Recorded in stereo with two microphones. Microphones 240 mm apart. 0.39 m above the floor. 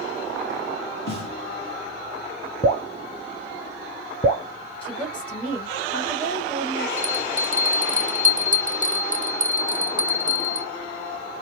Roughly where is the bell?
Right.